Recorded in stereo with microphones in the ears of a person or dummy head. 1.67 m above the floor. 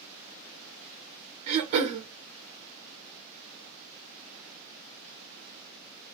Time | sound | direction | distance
1.5 | throat clearing | 35° right (ahead or behind) | 0.8 m